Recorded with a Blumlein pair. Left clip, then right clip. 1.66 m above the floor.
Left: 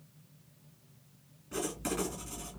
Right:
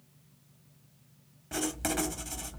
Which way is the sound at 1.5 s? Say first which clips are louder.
Right 3 dB; 50° right.